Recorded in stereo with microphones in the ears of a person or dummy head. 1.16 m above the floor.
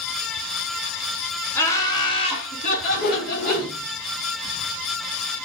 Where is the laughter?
10° left (ahead or behind), 1.0 m; by 3.7 s 55° left (ahead or behind), 1.6 m.